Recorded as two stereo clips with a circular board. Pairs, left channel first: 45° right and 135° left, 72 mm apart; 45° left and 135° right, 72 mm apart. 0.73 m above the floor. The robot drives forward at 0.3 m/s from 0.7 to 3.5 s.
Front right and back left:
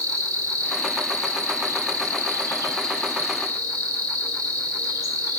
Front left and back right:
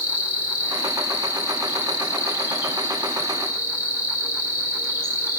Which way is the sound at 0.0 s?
165° left.